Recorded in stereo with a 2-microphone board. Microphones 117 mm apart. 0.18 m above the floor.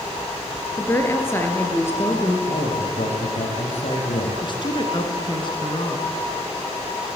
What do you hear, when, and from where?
0.8 s a woman speaking: 20° left (ahead or behind), 3.5 m
2.5 s a man speaking: 70° left (ahead or behind), 6 m
4.4 s a woman speaking: 45° left (ahead or behind), 2.5 m